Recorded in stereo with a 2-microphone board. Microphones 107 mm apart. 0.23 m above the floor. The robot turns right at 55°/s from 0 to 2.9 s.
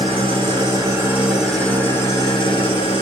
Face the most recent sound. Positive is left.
turn(degrees=80)